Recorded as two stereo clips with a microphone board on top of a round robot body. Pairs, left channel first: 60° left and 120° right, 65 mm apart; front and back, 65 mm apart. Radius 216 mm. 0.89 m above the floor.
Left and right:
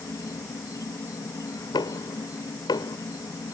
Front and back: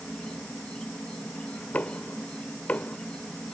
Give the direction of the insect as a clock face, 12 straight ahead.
10 o'clock.